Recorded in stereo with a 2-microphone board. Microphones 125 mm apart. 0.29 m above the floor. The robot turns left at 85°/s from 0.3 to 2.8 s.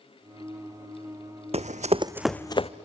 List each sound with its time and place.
1.5 s running footsteps: 55° right (ahead or behind), 0.8 m; by 2.7 s 55° left (ahead or behind), 1.0 m